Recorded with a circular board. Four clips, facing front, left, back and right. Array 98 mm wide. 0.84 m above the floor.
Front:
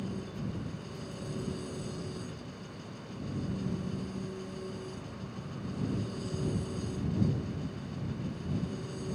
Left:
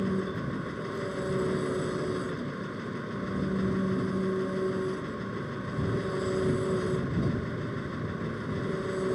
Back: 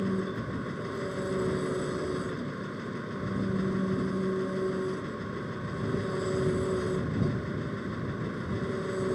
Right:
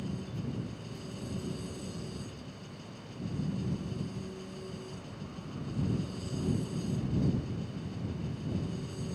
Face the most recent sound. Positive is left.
turn(degrees=130)